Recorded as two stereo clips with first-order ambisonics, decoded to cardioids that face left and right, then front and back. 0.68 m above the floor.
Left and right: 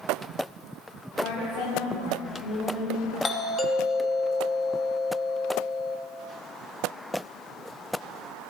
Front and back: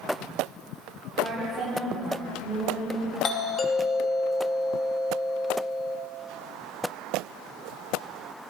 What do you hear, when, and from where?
1.2 s a woman speaking: 95° left, 5.5 m; by 3.1 s 90° left, 7.5 m
3.2 s a doorbell: 25° left, 0.9 m